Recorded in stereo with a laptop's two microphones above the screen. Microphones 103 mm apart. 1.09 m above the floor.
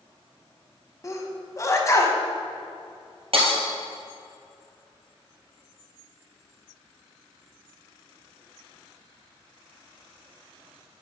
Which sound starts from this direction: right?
Breaking glass, at 3.3 s.